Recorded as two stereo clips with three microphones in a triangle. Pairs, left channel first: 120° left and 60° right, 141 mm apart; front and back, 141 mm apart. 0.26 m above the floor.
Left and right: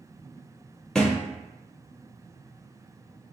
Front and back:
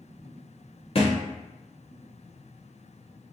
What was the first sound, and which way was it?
A thud, 35° left.